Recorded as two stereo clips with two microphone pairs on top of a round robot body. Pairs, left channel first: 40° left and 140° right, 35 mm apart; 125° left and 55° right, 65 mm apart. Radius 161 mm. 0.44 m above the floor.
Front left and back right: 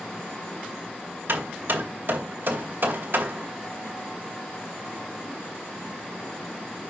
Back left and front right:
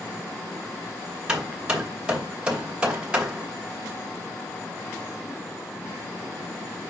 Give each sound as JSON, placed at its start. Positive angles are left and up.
{"t": 1.3, "sound": "hammering", "azimuth_deg": -125, "distance_m": 2.5}